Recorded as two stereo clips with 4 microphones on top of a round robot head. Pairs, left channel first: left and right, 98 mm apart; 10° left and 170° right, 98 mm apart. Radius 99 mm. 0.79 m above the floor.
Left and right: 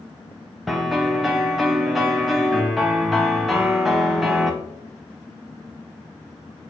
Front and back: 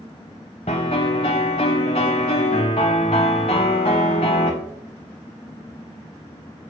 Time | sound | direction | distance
0.7 | a piano | straight ahead | 0.7 m